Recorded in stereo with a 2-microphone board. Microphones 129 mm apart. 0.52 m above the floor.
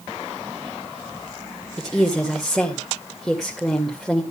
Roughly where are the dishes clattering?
I don't hear dishes clattering.